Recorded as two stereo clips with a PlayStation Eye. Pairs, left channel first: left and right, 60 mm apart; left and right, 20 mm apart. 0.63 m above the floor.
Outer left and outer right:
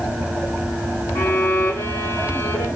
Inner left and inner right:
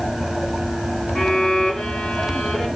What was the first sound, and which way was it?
A violin, 65° left (ahead or behind).